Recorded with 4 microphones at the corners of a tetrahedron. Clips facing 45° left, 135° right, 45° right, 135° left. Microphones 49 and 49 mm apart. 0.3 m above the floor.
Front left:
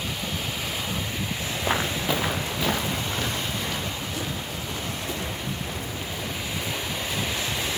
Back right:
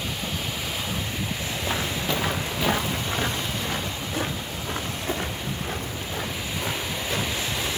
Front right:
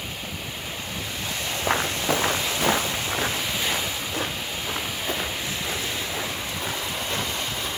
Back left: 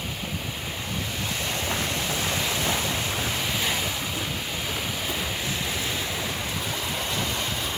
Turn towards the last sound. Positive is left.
turn(degrees=-95)